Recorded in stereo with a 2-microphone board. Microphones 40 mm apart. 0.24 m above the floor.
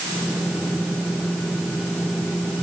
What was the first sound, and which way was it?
Only background noise.